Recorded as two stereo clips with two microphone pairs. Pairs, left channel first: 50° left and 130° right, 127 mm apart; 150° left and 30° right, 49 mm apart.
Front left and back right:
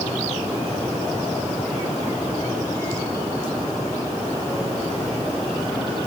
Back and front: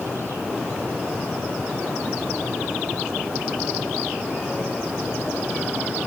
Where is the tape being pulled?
No tape being pulled in this recording.